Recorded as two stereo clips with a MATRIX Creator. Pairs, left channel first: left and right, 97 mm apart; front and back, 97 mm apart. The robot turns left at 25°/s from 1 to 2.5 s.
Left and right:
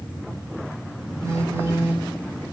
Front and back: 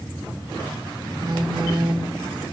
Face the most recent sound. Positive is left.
turn(degrees=-175)